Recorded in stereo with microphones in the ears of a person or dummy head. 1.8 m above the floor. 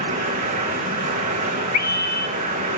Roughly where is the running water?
Right.